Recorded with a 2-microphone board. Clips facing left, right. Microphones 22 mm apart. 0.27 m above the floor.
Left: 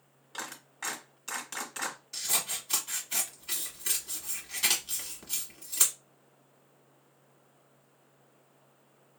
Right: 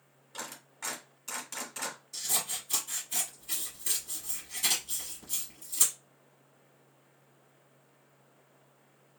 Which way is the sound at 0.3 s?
20° left (ahead or behind).